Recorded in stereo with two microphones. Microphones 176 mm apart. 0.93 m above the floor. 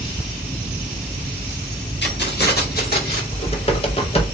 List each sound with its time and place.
2.0 s keys jangling: 80° left, 1.3 m; by 3.2 s 55° left (ahead or behind), 2 m
3.3 s typing on a keyboard: 35° left (ahead or behind), 0.9 m